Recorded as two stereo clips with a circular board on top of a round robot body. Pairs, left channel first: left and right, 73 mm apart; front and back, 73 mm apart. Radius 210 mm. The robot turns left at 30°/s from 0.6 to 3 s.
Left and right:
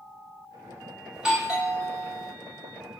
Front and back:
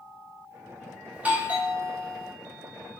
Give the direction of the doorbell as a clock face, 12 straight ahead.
5 o'clock.